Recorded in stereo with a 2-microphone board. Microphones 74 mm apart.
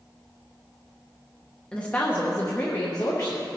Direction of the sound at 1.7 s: 15° left (ahead or behind).